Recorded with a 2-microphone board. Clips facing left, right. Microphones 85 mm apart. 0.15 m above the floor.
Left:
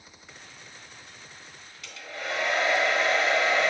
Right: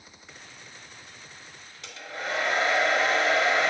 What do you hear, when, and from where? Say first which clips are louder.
1.8 s a hair dryer: right 1 dB; 30° right (ahead or behind), 1.2 m